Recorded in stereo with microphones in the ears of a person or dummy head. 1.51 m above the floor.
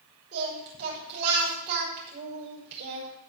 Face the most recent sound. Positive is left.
turn(degrees=-60)  # may be behind; listen again after turning